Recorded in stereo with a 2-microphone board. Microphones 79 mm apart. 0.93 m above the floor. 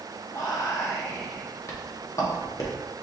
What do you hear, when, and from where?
0.3 s whispering: 40° left (ahead or behind), 0.8 m